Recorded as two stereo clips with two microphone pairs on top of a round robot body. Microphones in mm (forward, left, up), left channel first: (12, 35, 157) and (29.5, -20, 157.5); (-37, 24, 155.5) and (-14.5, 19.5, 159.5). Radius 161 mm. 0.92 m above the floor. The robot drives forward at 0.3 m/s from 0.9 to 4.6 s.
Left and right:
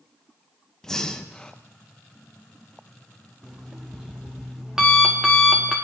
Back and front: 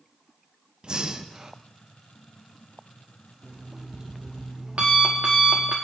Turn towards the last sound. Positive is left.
turn(degrees=10)